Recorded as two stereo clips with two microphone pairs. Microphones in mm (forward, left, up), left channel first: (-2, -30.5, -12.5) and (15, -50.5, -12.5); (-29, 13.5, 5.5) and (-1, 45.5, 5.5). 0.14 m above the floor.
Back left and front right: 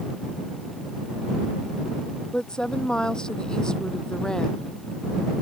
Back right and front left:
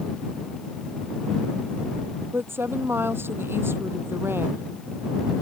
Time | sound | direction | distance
2.3 | a woman speaking | 70° left | ?